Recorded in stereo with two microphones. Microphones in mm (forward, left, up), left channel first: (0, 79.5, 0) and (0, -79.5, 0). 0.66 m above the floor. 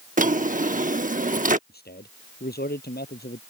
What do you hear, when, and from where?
0.2 s a drawer: 55° right (ahead or behind)
1.7 s a man speaking: 85° left